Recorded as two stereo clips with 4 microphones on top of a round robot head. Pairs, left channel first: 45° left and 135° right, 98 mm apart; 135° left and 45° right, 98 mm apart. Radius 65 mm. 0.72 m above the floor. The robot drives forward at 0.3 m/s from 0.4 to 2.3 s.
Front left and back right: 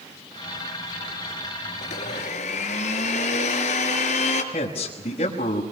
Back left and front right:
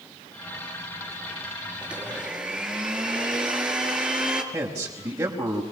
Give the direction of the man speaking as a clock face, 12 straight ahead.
11 o'clock.